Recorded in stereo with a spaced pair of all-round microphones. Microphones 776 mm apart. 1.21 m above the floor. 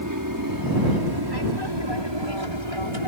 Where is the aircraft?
25° right (ahead or behind); by 3.1 s 40° right (ahead or behind).